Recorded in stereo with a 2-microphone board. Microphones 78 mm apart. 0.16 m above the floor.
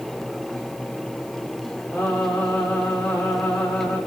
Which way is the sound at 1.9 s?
15° left (ahead or behind).